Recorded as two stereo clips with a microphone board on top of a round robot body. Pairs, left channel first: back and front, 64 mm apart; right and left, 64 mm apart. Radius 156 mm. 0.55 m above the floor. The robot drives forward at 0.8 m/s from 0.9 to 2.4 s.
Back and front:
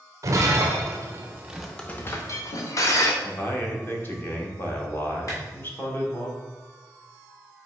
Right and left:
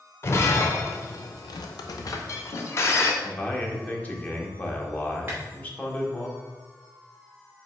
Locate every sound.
0.2 s breaking glass: 40° right, 0.8 m; by 3.1 s 140° right, 0.8 m
3.2 s a man speaking: 140° right, 1.7 m
5.3 s a clap: 155° left, 2.5 m